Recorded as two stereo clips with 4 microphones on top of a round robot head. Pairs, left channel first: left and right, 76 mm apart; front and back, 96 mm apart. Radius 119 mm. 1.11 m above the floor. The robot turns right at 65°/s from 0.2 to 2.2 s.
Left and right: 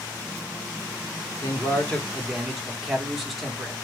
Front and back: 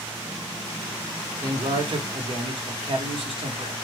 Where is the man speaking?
130° left, 1.1 m; by 3.7 s straight behind, 1.1 m.